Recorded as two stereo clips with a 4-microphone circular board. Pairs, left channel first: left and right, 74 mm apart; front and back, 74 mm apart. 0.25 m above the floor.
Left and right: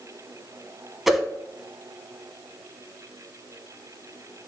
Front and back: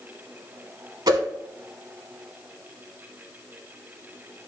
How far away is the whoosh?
About 0.5 m.